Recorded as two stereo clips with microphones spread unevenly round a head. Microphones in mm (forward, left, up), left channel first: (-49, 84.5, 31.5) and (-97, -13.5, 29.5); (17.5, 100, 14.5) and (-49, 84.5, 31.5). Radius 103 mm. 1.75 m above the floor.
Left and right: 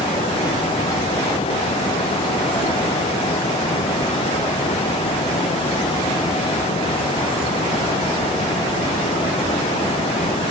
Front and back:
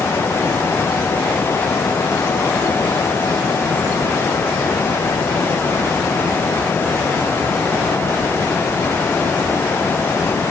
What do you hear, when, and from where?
Only background noise.